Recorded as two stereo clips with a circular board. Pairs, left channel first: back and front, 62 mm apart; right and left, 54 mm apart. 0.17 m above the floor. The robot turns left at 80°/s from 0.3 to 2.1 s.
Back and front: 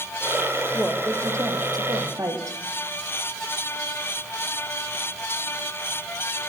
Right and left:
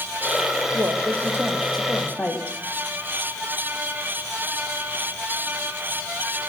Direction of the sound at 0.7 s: 80° left.